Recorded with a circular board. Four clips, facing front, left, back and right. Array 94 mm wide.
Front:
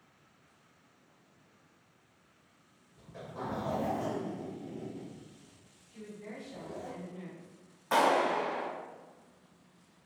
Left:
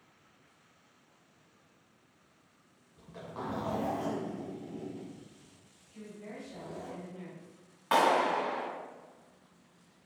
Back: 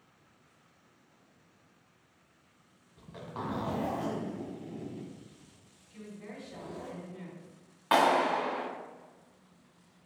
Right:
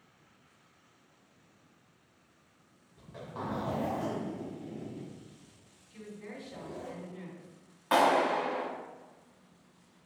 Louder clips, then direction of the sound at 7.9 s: Right 1 dB, back 2 dB; 175° left.